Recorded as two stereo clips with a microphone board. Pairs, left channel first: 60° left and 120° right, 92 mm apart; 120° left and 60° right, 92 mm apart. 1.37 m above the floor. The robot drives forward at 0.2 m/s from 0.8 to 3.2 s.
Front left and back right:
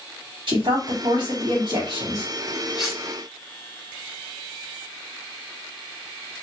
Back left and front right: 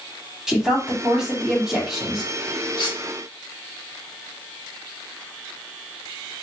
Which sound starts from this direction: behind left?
Cutlery clinking, at 2.8 s.